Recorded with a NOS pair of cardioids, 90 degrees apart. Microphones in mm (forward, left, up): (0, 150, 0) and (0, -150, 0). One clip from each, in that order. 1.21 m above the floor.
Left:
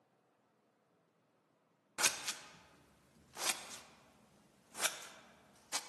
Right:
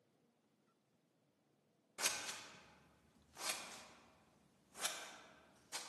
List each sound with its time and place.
2.0 s scissors: 35° left, 0.5 m